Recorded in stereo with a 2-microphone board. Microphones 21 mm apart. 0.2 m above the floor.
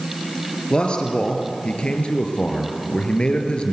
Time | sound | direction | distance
0.7 | a man speaking | 45° left (ahead or behind) | 3.5 m